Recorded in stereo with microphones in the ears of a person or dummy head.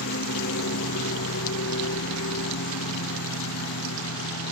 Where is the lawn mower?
60° left (ahead or behind); by 4.5 s 65° left (ahead or behind).